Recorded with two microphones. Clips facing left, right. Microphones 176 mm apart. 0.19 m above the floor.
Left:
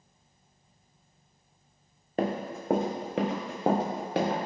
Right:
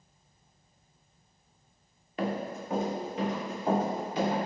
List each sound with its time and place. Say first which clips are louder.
2.2 s running footsteps: left 2 dB; 45° left (ahead or behind), 0.7 m; by 4.5 s 70° left (ahead or behind), 1.2 m